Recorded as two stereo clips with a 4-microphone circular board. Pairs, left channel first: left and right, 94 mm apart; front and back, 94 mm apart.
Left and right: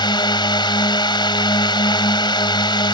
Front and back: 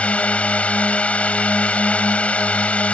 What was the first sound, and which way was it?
A drone, 75° left.